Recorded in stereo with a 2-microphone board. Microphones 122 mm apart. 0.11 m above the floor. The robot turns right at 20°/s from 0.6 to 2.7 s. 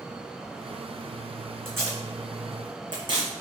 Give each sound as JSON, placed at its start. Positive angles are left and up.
{"t": 1.6, "sound": "tape being pulled", "side_deg": -20, "distance_m": 1.7}